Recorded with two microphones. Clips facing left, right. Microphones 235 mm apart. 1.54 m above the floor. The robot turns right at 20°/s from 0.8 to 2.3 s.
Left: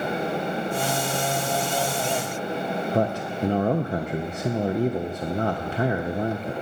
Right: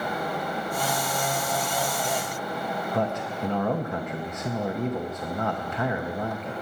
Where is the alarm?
No alarm in this recording.